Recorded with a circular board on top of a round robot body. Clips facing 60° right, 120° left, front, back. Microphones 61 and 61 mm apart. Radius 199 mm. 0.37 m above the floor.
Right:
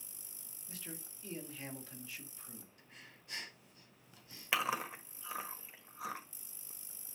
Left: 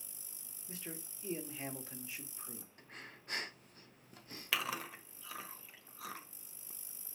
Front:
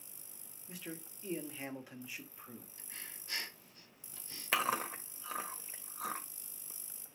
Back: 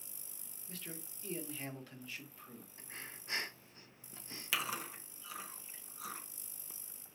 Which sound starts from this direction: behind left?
Breathing, at 2.8 s.